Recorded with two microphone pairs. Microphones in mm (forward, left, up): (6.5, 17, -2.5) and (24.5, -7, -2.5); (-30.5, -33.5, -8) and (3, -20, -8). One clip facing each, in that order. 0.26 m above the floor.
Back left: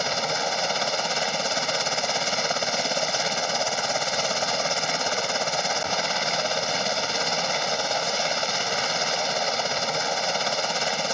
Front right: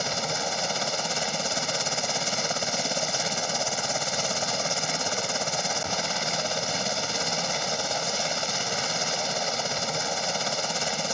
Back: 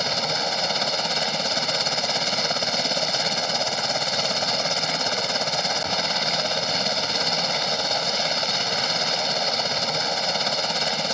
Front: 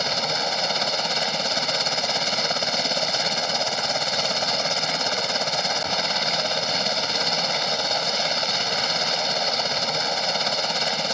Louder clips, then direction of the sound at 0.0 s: Back left 3 dB, even; 105° left.